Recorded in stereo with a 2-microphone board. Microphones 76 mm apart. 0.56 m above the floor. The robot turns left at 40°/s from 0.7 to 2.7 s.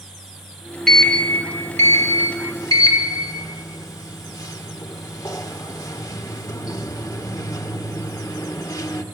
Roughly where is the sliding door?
Behind.